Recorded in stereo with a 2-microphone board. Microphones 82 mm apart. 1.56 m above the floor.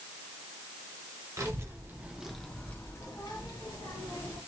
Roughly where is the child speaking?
Right.